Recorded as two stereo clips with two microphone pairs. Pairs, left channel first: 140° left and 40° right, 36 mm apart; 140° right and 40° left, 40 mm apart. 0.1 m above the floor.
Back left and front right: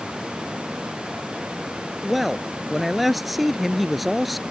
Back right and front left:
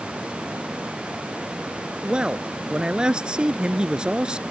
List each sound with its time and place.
2.0 s a man speaking: 40° left